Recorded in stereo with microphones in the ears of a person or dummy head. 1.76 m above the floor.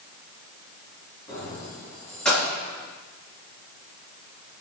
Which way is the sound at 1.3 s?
10° left (ahead or behind).